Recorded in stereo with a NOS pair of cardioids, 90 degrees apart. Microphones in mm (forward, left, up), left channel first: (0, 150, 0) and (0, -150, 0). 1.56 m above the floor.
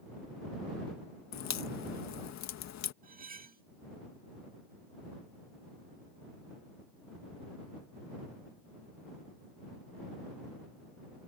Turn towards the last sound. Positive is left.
turn(degrees=-30)